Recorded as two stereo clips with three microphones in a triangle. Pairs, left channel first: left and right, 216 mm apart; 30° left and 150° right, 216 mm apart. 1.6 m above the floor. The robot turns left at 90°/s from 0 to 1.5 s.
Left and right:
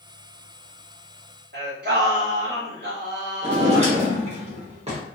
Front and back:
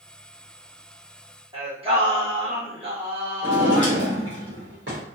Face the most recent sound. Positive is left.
turn(degrees=-145)